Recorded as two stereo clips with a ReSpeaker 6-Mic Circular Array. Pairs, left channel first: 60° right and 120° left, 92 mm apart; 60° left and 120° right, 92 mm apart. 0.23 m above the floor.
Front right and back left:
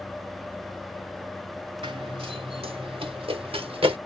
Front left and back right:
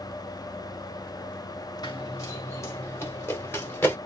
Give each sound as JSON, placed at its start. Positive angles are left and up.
{"t": 1.8, "sound": "running footsteps", "azimuth_deg": 105, "distance_m": 1.0}